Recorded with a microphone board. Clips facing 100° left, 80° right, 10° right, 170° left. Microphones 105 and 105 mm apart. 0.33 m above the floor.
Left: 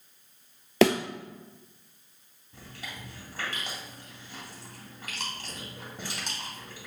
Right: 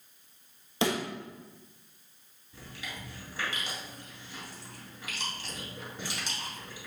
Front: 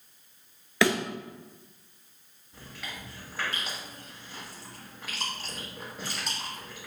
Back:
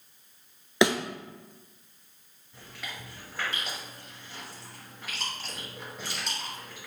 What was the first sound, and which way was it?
A thud, 100° left.